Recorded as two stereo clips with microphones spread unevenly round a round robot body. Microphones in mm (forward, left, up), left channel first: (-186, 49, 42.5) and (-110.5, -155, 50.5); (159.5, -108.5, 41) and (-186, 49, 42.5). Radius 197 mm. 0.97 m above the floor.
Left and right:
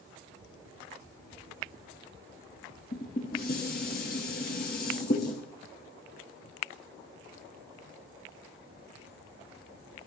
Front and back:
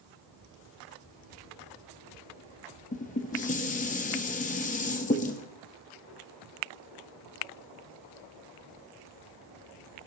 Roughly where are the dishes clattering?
Ahead left.